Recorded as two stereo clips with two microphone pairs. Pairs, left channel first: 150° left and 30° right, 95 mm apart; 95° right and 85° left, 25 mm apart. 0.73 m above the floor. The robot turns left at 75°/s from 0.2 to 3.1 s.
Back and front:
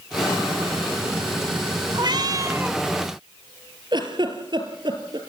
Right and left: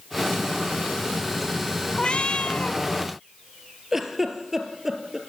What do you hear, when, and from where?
1.9 s a cat meowing: 50° right, 0.5 m; by 2.8 s 110° right, 0.5 m
3.9 s a giggle: 10° left, 3 m